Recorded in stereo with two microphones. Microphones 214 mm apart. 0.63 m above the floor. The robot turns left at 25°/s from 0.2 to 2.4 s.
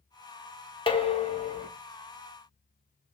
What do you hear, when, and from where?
0.9 s dishes clattering: 25° left (ahead or behind), 0.5 m; by 1.7 s 35° left (ahead or behind), 0.5 m